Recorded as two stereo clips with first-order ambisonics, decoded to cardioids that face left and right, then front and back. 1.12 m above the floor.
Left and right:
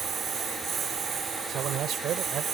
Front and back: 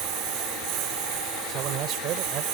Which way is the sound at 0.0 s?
150° right.